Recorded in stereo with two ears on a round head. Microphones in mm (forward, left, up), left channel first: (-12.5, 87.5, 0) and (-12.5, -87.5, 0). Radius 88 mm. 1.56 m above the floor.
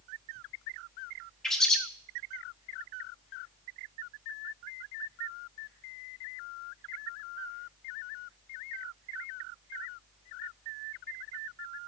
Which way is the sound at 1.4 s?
Centre (ahead or behind).